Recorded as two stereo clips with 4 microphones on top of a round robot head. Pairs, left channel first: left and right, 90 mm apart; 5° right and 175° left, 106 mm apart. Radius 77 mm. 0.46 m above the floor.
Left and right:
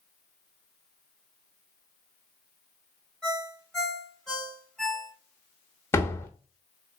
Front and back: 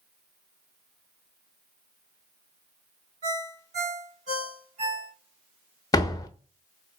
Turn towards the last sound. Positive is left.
turn(degrees=35)